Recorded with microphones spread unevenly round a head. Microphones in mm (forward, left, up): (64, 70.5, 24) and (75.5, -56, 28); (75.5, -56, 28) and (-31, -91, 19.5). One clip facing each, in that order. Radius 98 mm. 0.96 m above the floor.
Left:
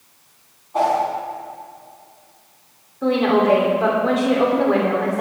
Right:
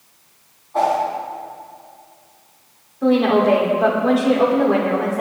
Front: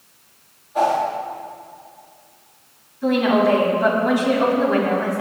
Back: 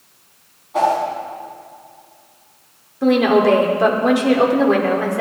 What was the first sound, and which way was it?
A whoosh, 175° left.